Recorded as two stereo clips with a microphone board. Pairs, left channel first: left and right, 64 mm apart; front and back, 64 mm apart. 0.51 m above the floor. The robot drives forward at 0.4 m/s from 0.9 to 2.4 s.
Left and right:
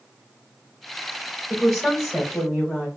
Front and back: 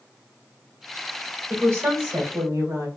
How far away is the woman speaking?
About 1.6 m.